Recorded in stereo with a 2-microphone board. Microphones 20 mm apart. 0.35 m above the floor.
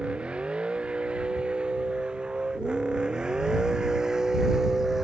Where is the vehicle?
65° right (ahead or behind); by 5.0 s 15° right (ahead or behind).